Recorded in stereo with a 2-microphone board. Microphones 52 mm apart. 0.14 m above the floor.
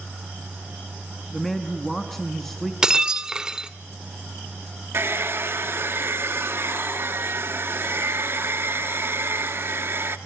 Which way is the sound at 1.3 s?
5° left (ahead or behind).